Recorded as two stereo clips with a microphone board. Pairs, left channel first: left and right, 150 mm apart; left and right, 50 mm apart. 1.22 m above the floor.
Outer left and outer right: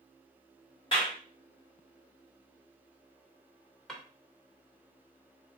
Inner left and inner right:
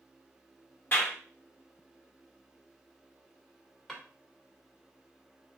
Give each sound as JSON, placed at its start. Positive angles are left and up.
{"t": 0.9, "sound": "a clap", "side_deg": 35, "distance_m": 1.9}
{"t": 3.9, "sound": "a drawer", "side_deg": 5, "distance_m": 1.3}